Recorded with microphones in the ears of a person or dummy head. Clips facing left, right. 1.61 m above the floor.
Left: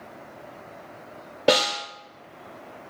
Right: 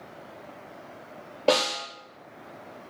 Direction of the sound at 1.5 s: 20° left (ahead or behind).